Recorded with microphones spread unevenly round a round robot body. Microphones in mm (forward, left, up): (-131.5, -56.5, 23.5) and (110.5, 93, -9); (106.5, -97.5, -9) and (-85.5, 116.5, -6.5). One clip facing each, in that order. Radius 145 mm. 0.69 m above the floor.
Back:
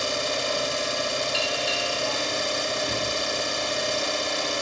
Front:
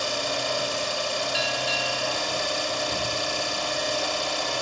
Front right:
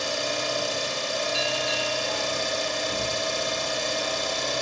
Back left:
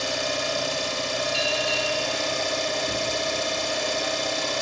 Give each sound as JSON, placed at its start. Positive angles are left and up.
{"t": 0.0, "sound": "an engine running", "azimuth_deg": 145, "distance_m": 1.4}
{"t": 1.3, "sound": "a bell", "azimuth_deg": 165, "distance_m": 1.2}